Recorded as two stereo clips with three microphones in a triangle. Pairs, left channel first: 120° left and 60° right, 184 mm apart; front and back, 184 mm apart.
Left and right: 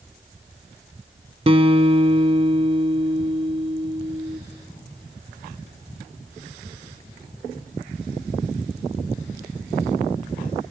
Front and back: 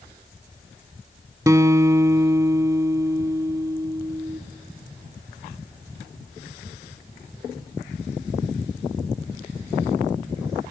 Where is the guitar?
110° right, 0.9 m.